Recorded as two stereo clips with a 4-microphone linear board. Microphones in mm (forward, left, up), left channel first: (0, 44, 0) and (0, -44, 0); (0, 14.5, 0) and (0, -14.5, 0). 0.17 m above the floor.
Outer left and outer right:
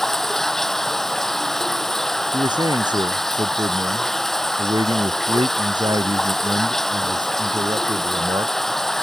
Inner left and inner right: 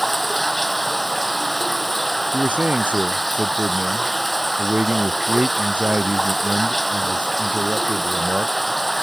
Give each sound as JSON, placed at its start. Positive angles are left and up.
{"t": 0.0, "sound": "running water", "side_deg": 5}
{"t": 2.3, "sound": "a man speaking", "side_deg": -60}